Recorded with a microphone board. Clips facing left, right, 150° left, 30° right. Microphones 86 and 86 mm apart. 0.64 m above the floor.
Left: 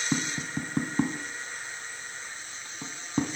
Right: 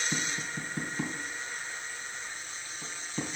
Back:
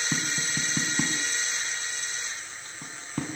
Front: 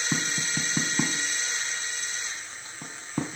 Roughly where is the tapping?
Ahead left.